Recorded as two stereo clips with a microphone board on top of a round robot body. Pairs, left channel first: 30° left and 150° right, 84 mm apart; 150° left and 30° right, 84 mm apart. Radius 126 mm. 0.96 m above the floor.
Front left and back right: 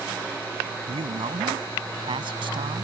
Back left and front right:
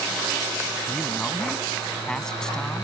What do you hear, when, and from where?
0.9 s a man speaking: 125° right